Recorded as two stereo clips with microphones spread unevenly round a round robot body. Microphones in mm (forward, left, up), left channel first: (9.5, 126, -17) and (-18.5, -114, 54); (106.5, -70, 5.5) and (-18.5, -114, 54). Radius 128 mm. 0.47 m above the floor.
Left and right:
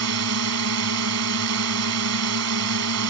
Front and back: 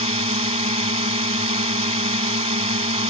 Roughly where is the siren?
I don't hear a siren.